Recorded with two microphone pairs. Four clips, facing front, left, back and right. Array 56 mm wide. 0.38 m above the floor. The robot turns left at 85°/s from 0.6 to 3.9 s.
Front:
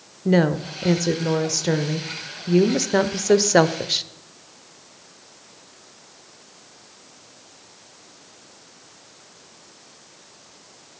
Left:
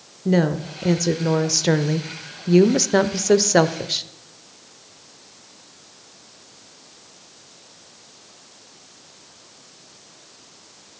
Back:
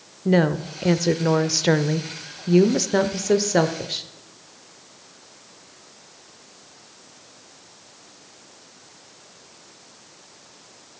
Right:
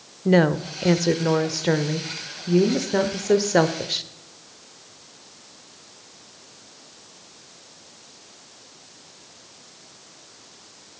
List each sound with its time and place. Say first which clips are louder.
0.2 s a woman speaking: right 2 dB, even; 95° right, 0.8 m; by 4.1 s 15° right, 0.8 m